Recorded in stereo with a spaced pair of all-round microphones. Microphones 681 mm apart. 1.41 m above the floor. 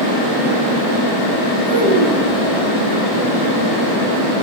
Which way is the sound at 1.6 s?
45° right (ahead or behind).